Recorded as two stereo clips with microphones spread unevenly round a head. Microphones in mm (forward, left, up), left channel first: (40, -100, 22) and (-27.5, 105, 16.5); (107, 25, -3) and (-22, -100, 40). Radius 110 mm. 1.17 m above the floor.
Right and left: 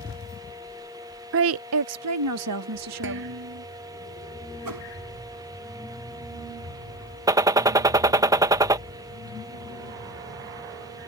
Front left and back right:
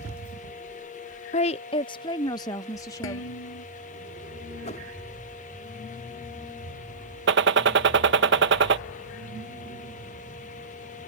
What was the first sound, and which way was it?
A woman speaking, 85° left.